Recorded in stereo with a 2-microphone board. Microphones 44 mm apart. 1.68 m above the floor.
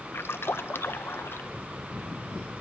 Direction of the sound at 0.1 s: 70° left (ahead or behind).